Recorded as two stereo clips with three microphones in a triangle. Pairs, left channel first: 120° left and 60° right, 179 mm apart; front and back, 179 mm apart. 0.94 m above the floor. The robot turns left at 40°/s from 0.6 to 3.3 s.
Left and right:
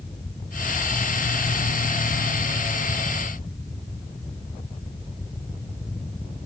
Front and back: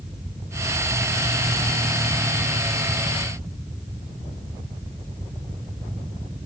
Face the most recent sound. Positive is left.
No sound to turn to.